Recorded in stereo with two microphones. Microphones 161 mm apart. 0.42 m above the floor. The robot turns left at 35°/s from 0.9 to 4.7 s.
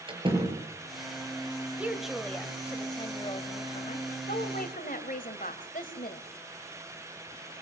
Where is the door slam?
30° right (ahead or behind), 6 m.